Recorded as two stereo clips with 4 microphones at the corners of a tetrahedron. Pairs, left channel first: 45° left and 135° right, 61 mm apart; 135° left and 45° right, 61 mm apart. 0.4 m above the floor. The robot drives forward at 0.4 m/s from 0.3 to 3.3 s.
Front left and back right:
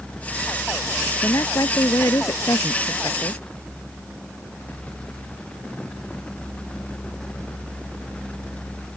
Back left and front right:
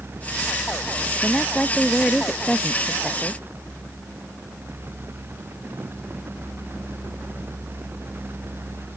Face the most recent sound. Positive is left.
turn(degrees=60)